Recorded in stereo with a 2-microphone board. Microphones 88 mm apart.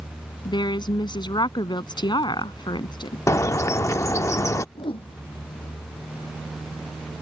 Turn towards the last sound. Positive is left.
turn(degrees=80)